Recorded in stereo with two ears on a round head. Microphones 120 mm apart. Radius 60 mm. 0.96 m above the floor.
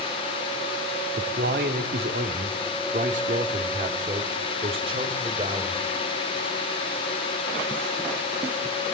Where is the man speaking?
75° right (ahead or behind), 2.5 m; by 5.8 s 35° right (ahead or behind), 4 m.